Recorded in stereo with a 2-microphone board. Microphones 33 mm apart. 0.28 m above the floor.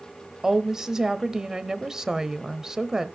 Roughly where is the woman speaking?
Centre.